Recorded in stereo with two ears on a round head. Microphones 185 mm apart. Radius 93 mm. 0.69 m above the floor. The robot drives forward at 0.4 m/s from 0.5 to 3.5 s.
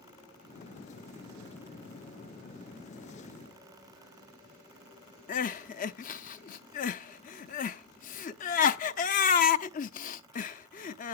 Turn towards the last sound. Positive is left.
turn(degrees=40)  # may be behind; listen again after turning